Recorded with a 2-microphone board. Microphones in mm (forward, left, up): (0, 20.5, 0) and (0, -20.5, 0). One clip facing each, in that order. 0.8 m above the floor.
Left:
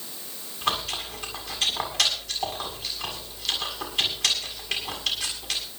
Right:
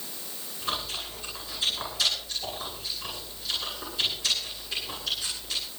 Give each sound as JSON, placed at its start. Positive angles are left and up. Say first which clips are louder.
{"t": 0.6, "sound": "chewing", "louder": "left 5 dB", "side_deg": 80, "distance_m": 7.0}